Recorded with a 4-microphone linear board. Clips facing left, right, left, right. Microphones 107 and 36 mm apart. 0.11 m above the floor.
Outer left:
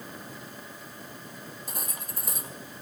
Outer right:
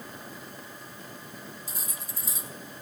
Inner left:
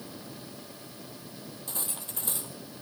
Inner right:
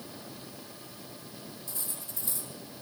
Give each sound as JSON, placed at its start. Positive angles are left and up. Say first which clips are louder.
{"t": 1.7, "sound": "cutlery clinking", "louder": "outer left 2 dB, inner left 4 dB", "side_deg": 60, "distance_m": 1.9}